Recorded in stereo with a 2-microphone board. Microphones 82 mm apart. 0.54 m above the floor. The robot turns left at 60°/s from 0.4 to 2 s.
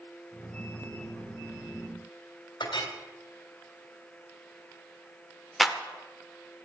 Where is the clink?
75° left (ahead or behind), 2.0 m.